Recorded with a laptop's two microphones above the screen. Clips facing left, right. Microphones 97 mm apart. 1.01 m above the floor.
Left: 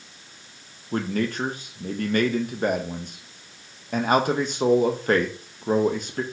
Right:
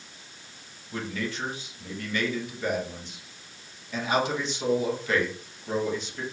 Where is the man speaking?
50° left (ahead or behind), 0.6 m.